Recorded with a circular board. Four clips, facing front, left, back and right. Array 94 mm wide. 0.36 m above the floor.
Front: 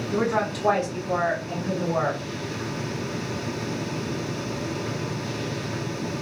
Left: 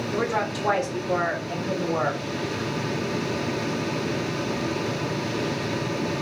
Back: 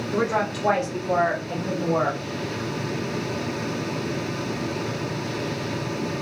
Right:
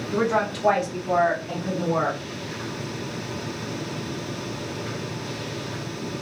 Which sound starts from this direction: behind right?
A woman speaking, at 0.1 s.